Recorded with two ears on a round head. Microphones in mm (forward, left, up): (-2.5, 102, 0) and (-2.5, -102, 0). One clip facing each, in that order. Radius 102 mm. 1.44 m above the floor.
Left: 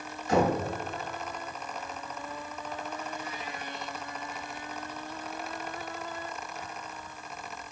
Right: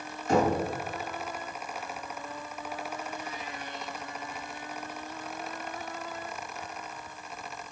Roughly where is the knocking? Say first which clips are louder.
Even; right.